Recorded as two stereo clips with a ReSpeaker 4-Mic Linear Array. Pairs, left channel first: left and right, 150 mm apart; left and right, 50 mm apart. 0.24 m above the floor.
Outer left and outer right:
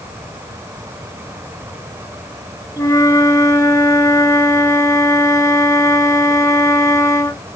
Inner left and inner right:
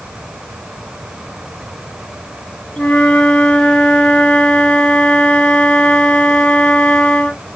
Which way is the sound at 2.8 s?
20° left (ahead or behind).